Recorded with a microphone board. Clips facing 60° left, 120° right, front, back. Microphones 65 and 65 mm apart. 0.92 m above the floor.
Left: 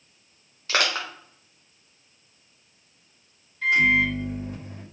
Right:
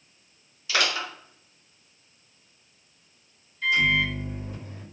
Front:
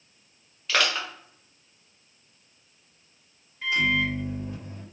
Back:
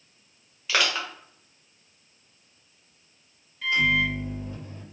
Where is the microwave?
70° left, 1.9 m.